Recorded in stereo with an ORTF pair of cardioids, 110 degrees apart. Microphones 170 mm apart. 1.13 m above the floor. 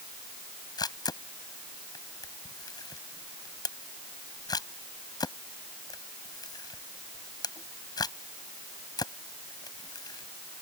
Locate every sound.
0.8 s a camera shutter: 25° left